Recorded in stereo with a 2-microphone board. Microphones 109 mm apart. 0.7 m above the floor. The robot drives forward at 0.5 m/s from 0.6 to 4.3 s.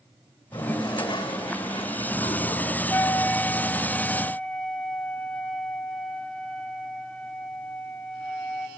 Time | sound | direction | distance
0.5 | a toilet flushing | 45° left (ahead or behind) | 2 m
2.9 | a flute | 25° left (ahead or behind) | 0.5 m